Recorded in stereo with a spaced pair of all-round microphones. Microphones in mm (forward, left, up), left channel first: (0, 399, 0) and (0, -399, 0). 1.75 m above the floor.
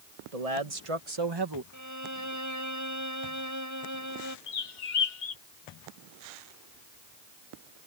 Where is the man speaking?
55° right (ahead or behind); by 1.6 s 25° right (ahead or behind).